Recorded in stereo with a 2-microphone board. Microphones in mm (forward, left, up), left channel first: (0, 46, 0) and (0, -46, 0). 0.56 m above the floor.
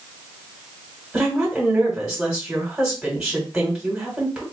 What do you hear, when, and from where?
1.1 s a woman speaking: 10° right (ahead or behind), 2 m